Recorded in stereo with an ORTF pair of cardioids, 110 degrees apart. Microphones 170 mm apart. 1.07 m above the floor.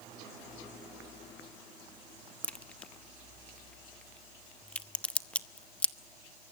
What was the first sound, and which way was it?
A crack, 5° left.